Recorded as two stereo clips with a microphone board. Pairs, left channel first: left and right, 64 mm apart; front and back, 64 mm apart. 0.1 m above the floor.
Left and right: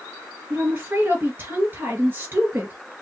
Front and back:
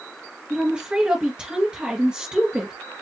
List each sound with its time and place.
0.5 s a woman speaking: 115° right, 1.5 m